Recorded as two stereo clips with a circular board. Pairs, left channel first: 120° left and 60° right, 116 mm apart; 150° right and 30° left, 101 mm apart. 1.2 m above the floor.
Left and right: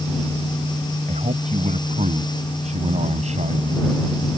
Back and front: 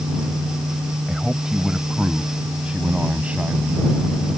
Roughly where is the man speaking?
Ahead right.